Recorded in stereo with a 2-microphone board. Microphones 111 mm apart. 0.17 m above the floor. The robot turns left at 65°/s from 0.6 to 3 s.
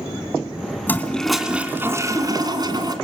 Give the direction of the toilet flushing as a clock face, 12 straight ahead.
11 o'clock.